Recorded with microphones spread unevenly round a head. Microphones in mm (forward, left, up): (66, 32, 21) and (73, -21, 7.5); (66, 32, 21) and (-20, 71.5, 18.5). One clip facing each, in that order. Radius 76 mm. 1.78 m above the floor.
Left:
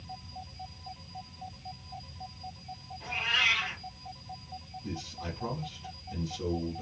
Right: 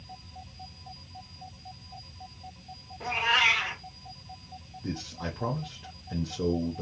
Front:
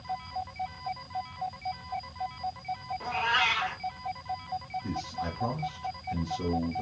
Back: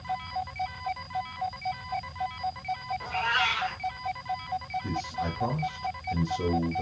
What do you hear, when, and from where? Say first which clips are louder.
3.0 s a cat meowing: right 4 dB, front 1 dB; 80° right, 1.6 m
4.8 s a man speaking: right 5 dB, back 2 dB; 130° right, 0.7 m